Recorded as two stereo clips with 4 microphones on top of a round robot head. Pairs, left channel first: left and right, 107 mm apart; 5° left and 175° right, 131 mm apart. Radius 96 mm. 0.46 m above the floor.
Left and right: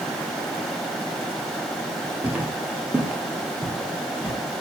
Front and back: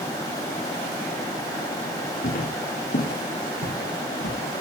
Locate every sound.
2.2 s footsteps: 15° right, 4.5 m; by 4.4 s 10° right, 6 m